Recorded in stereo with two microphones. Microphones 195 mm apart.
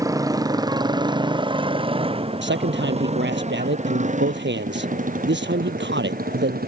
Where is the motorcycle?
15° right (ahead or behind); by 6.7 s 50° right (ahead or behind).